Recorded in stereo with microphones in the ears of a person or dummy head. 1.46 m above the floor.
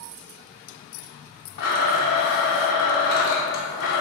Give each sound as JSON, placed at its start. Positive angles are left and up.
{"t": 1.6, "sound": "a blender", "side_deg": 60, "distance_m": 0.7}